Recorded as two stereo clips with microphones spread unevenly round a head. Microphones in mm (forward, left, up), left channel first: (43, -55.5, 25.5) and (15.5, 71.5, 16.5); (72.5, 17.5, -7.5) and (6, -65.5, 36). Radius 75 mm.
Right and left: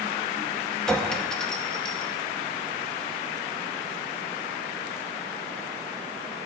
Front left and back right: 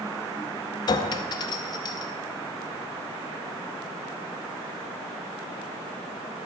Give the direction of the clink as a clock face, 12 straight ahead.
12 o'clock.